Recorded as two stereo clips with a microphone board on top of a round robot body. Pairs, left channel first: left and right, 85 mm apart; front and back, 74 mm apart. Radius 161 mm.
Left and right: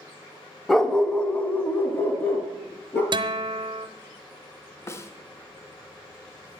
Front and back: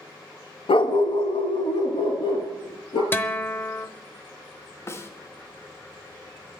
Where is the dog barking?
5° left, 0.7 m; by 3.0 s 20° left, 3 m.